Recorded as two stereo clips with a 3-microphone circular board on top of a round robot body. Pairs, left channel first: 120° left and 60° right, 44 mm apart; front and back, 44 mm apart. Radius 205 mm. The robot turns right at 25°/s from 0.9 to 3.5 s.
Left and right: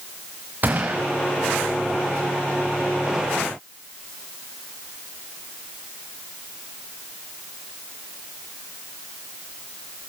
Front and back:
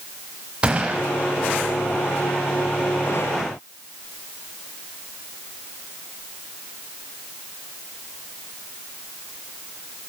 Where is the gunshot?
110° right, 0.6 m.